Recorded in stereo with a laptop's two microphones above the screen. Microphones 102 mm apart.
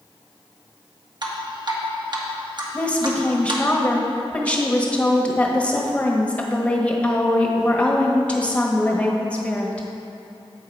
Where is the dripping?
45° right (ahead or behind), 1.3 m.